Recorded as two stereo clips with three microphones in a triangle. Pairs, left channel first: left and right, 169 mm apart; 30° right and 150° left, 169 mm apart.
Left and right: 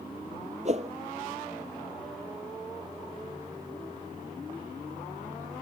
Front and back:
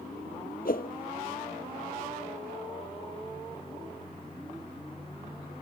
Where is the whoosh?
45° right.